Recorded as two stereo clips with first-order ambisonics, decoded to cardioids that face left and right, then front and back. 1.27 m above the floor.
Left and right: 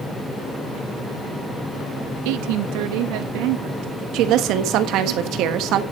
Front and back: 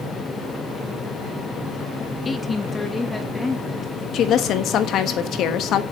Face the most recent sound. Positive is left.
turn(degrees=-50)